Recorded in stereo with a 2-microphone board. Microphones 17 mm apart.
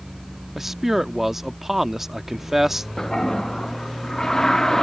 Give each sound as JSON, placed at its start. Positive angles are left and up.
{"t": 0.6, "sound": "a man speaking", "side_deg": -25}
{"t": 3.0, "sound": "a toilet flushing", "side_deg": 25}